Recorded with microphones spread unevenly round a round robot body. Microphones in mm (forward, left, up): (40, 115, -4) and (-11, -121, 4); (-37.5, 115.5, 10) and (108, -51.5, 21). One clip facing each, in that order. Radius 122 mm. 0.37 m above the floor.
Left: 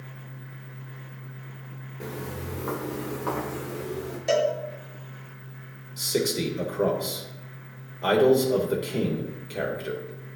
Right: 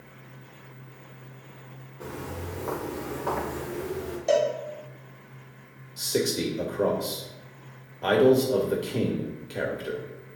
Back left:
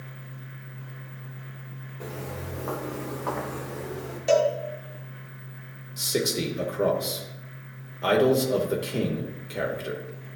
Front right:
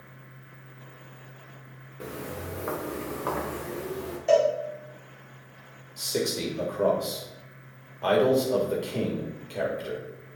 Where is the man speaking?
150° left, 0.9 m.